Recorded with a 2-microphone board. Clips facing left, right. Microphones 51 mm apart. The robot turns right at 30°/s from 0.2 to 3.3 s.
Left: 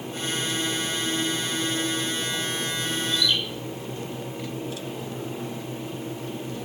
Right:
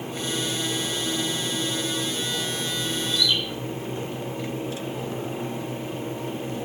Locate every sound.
3.1 s a bird: 35° left (ahead or behind), 4.5 m; by 3.4 s 30° left (ahead or behind), 4.5 m